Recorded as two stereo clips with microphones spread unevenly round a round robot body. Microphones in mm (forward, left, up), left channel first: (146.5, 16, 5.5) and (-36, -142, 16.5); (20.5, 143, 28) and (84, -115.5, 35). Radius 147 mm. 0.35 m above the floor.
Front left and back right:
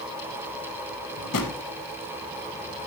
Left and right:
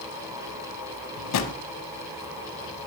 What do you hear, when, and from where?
1.2 s a drawer: 80° left, 1.0 m